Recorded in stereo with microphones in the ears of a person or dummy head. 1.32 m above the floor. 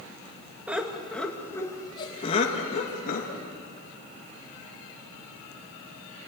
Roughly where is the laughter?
Centre.